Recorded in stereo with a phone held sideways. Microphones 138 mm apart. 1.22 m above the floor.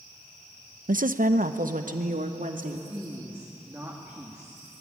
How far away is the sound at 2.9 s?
About 2.5 m.